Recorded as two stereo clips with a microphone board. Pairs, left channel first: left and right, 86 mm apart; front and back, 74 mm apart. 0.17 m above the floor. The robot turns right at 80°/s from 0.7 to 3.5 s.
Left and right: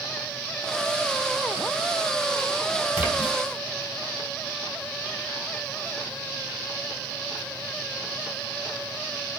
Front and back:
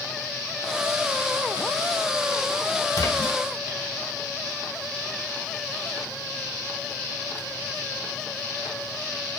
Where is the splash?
25° right, 2.5 m; by 3.4 s 10° left, 2.5 m.